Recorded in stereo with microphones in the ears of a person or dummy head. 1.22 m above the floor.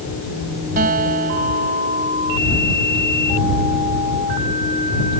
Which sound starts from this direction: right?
A guitar, at 0.8 s.